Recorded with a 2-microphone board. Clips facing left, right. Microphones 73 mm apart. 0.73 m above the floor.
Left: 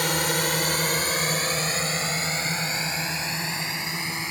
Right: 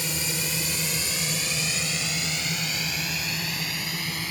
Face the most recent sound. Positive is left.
turn(degrees=20)  # may be behind; listen again after turning